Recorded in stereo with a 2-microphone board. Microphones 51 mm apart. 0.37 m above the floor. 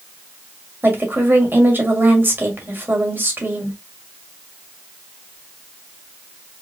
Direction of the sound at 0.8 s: 40° right (ahead or behind).